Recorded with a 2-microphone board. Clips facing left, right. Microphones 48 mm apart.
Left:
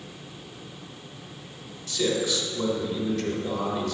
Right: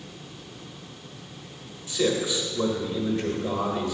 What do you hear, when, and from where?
1.9 s a man speaking: 20° right (ahead or behind), 1.1 m